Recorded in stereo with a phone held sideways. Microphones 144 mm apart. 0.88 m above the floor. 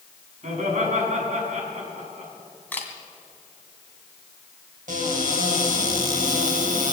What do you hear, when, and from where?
0.4 s laughter: 55° right (ahead or behind), 6.5 m
2.7 s a camera shutter: 10° left (ahead or behind), 2 m
4.9 s a cupboard door: 65° right (ahead or behind), 3.5 m